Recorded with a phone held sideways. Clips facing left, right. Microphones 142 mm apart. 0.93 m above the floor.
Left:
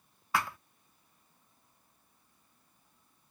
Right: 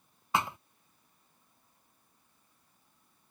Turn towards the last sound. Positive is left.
turn(degrees=-20)  # may be behind; listen again after turning